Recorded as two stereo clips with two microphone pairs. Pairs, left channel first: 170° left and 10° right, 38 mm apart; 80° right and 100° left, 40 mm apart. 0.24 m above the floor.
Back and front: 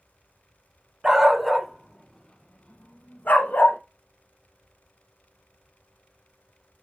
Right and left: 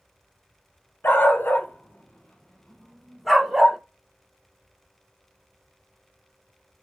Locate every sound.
1.0 s a dog barking: 85° right, 1.1 m; by 3.8 s 175° right, 1.1 m